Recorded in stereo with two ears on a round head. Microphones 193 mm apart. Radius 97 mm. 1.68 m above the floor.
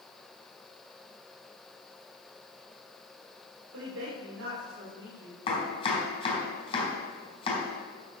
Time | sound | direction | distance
3.7 | a woman speaking | 70° right (ahead or behind) | 6 m
5.5 | chopping | 25° left (ahead or behind) | 4.5 m